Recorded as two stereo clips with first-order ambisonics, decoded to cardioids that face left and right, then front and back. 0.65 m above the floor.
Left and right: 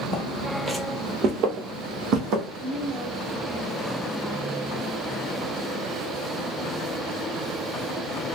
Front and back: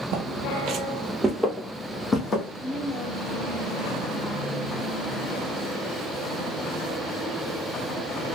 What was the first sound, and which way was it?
Footsteps, 165° left.